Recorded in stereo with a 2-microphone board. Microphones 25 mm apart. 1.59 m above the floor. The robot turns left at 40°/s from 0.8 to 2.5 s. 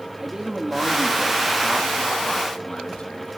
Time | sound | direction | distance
0.2 | a man speaking | 155° right | 2.5 m